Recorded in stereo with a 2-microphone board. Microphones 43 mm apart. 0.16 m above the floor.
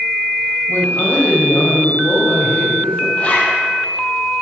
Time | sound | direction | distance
0.7 | a woman speaking | 60° left (ahead or behind) | 5 m
3.2 | a zipper | 35° left (ahead or behind) | 2.5 m